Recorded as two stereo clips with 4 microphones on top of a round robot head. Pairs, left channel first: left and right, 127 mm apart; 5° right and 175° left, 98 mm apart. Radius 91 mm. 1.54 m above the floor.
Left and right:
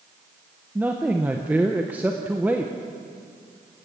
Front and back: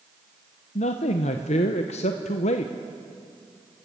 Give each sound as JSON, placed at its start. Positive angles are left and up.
{"t": 0.8, "sound": "a man speaking", "azimuth_deg": -10, "distance_m": 0.8}